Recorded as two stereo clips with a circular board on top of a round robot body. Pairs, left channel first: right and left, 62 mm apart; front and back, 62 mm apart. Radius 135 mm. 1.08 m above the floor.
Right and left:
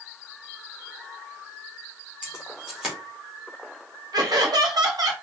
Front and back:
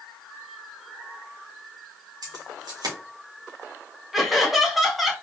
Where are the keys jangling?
170° left, 2.5 m.